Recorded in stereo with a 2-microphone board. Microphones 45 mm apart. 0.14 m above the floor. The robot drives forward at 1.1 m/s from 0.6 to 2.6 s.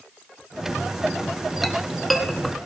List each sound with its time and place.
1.6 s a clink: centre (ahead or behind), 1.5 m